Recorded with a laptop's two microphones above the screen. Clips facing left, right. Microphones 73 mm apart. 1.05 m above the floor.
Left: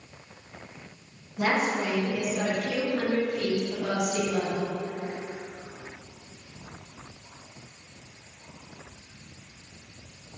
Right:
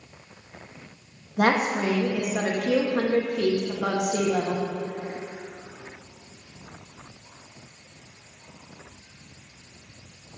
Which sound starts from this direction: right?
A woman speaking, at 1.4 s.